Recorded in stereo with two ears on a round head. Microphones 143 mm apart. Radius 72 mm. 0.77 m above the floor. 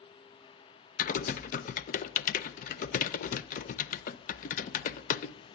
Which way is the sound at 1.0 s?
50° left (ahead or behind).